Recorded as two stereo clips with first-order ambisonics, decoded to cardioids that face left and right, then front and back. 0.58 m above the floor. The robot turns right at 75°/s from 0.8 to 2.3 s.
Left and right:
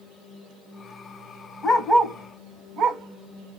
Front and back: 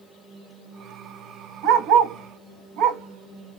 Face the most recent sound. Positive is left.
turn(degrees=-140)